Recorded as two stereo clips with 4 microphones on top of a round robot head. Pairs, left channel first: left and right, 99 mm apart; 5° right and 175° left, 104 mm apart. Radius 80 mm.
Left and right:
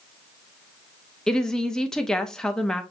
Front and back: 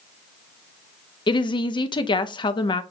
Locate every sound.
1.3 s a woman speaking: 10° left, 0.7 m